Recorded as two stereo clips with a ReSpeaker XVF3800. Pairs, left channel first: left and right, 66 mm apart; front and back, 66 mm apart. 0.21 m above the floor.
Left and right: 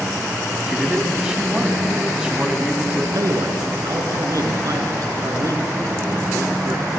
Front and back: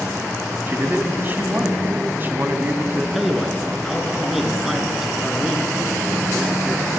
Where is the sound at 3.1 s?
95° right, 3 m.